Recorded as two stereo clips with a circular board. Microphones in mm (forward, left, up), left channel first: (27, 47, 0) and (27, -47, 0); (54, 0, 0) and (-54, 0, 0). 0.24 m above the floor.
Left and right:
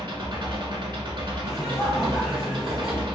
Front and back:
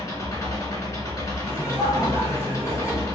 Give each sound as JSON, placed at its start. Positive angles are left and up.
{"t": 0.0, "sound": "an engine running", "azimuth_deg": -60, "distance_m": 0.9}
{"t": 1.4, "sound": "laughter", "azimuth_deg": -160, "distance_m": 1.7}